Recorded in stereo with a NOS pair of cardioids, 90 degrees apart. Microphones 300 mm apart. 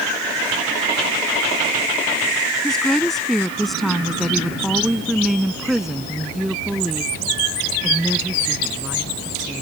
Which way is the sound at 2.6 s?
Straight ahead.